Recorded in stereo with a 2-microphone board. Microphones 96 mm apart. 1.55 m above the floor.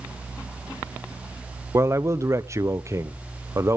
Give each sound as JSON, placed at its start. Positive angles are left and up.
{"t": 1.7, "sound": "a man speaking", "side_deg": -30, "distance_m": 0.9}